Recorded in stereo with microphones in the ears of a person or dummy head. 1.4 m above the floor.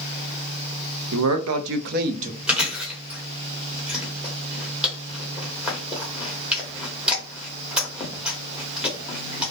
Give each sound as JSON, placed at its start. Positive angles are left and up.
{"t": 1.1, "sound": "a man speaking", "side_deg": -70, "distance_m": 0.6}
{"t": 2.5, "sound": "chewing", "side_deg": -5, "distance_m": 0.8}